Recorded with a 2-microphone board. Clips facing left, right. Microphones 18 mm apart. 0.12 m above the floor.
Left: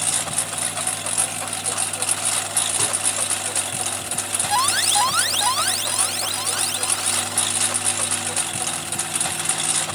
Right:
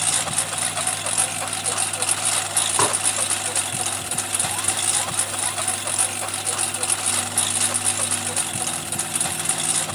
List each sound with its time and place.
0.0 s a lawn mower: 15° right (ahead or behind); by 10.0 s centre (ahead or behind)
2.8 s dishes clattering: 55° right (ahead or behind)
4.5 s an alarm: 65° left (ahead or behind)